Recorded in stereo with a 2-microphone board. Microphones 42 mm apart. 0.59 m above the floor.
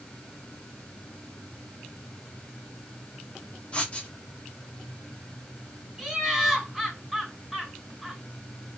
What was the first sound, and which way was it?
Writing, 25° left (ahead or behind).